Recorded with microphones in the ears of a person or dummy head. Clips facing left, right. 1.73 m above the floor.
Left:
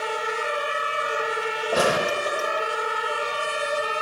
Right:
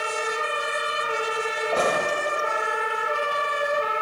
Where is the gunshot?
25° left (ahead or behind), 1.1 m.